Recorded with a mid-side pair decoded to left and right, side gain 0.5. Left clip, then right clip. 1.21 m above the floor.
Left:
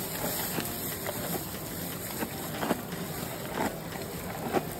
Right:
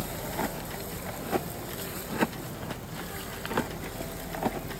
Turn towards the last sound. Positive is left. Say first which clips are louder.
# right 1 dB
turn(degrees=-70)